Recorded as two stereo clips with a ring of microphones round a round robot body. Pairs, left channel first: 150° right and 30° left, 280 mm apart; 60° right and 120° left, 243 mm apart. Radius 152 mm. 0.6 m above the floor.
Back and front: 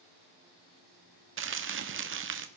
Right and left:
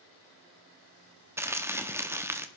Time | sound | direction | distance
1.4 | crumpling | 45° left | 1.3 m